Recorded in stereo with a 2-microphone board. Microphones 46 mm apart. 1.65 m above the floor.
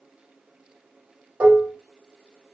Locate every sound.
1.4 s dishes clattering: 45° right (ahead or behind), 1.2 m